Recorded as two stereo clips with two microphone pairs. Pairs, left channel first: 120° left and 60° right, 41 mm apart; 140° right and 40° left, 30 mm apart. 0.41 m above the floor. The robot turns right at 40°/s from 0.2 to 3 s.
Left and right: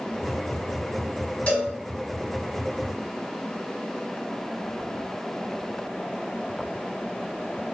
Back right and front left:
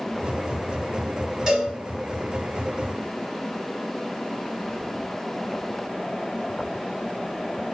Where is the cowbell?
90° left, 1.5 m; by 1.7 s 100° left, 1.5 m.